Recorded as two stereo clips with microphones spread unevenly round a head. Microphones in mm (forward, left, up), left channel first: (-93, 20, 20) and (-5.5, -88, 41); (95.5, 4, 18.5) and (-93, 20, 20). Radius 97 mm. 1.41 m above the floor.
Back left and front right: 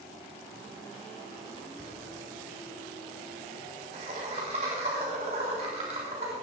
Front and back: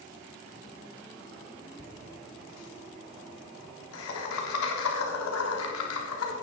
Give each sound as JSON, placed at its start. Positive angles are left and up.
{"t": 1.8, "sound": "laughter", "azimuth_deg": 10, "distance_m": 3.0}